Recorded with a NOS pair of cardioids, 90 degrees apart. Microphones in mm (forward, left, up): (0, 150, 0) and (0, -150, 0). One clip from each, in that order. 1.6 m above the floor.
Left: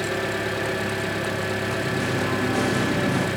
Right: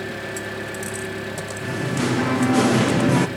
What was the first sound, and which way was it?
An engine running, 30° left.